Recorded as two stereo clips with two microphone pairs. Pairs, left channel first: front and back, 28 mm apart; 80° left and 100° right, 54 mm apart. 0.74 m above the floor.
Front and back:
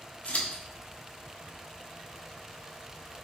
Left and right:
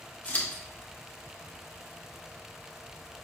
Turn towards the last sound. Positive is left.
turn(degrees=20)